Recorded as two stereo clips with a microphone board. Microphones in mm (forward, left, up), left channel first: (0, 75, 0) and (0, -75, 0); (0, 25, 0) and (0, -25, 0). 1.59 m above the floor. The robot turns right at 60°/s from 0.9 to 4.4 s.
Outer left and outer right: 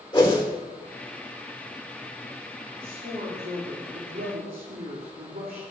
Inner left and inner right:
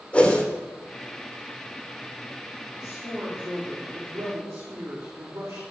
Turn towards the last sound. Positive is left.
turn(degrees=-70)